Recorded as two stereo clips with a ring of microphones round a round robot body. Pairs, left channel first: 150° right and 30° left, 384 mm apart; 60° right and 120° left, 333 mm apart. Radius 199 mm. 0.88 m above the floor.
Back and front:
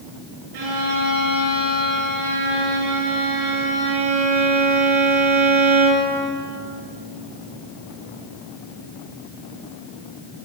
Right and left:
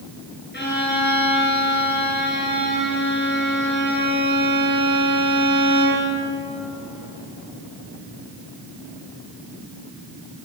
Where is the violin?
Straight ahead, 7 m.